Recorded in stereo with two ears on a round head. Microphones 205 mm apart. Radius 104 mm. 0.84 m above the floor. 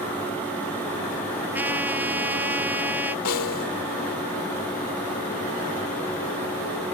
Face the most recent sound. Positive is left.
turn(degrees=75)  # may be behind; listen again after turning